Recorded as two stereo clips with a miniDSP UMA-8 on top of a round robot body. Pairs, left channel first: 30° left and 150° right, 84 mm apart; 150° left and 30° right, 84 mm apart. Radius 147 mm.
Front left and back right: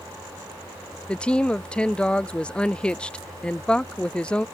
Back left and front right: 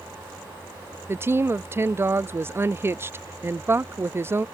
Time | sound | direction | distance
1.1 | a woman speaking | 35° right | ?